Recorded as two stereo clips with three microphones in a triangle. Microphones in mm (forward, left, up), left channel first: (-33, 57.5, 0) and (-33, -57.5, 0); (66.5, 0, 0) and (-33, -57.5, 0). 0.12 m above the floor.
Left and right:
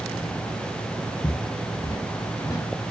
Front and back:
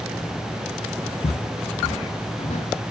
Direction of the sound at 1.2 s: 35° left.